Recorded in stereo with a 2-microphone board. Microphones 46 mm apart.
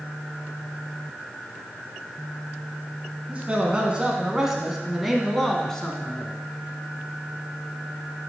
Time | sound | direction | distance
3.3 | a man speaking | 25° right (ahead or behind) | 1.2 m